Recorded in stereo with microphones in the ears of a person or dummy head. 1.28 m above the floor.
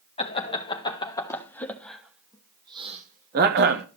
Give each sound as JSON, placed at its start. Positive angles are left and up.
{"t": 0.2, "sound": "laughter", "side_deg": 30, "distance_m": 1.8}